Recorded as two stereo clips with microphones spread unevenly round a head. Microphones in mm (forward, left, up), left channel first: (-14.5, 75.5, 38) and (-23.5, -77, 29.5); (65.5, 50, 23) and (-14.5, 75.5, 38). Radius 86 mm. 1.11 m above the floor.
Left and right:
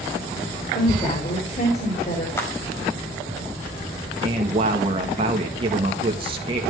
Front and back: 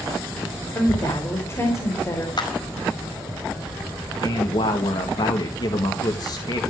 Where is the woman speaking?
35° left, 4.5 m.